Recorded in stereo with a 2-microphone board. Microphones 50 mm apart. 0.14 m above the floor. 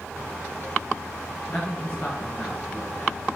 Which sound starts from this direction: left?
A man speaking, at 1.5 s.